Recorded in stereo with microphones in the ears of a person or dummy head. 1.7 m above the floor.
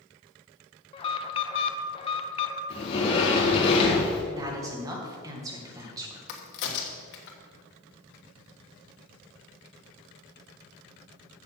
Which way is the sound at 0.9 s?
30° left (ahead or behind).